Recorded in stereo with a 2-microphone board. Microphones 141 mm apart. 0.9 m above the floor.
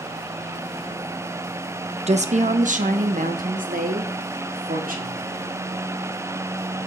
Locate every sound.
2.1 s a woman speaking: 50° right (ahead or behind), 0.9 m; by 5.2 s 80° right, 2.5 m